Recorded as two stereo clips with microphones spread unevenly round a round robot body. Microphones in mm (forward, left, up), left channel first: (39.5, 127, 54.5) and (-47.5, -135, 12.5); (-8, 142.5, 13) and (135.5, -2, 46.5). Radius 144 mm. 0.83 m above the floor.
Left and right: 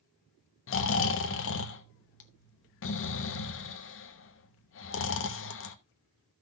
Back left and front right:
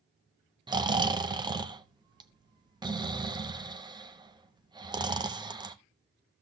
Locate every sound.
0.7 s snoring: 30° left, 1.1 m